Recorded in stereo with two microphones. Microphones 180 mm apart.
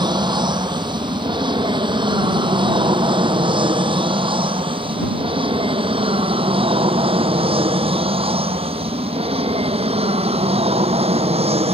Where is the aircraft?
25° right (ahead or behind); by 11.7 s 35° right (ahead or behind).